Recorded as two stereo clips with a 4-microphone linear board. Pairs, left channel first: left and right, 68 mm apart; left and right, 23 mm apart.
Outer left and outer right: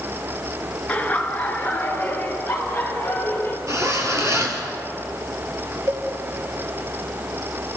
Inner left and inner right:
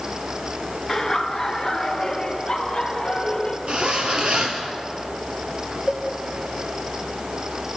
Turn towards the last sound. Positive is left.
turn(degrees=-45)  # may be behind; listen again after turning